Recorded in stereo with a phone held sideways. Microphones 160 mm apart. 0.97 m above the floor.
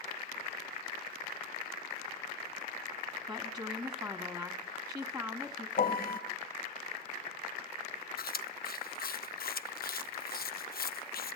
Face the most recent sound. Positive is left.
turn(degrees=65)  # may be behind; listen again after turning